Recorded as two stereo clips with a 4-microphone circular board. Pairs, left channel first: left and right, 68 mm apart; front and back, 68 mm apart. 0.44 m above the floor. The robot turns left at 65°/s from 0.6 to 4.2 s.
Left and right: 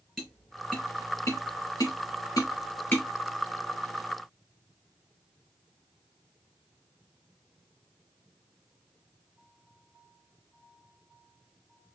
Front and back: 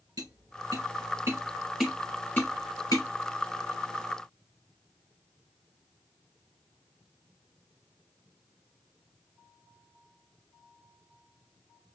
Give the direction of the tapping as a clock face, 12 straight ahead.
6 o'clock.